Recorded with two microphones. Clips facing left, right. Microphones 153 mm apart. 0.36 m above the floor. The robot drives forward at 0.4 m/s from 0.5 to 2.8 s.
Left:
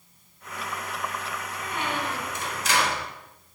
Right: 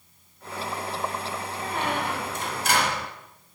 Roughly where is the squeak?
Right.